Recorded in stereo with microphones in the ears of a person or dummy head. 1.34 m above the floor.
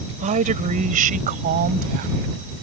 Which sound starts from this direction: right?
A woman speaking, at 0.2 s.